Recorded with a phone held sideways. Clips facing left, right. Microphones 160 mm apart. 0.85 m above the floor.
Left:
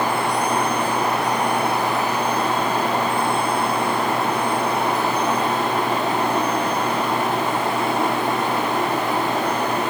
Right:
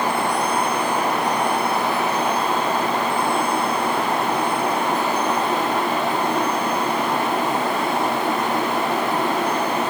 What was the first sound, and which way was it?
Only background noise.